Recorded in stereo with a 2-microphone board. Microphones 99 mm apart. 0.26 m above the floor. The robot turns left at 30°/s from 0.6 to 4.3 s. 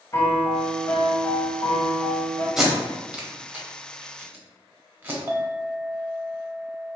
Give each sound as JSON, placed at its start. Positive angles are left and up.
{"t": 0.1, "sound": "a piano", "azimuth_deg": 130, "distance_m": 0.7}
{"t": 2.6, "sound": "tape being pulled", "side_deg": -5, "distance_m": 0.7}
{"t": 5.3, "sound": "a clink", "side_deg": -30, "distance_m": 0.6}